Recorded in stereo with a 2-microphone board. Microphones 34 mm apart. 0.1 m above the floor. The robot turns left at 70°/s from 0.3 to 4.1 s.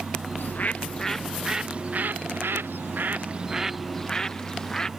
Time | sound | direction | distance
0.4 | a bird | 65° left | ?